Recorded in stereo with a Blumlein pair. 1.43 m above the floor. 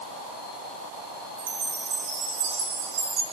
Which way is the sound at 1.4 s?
65° right.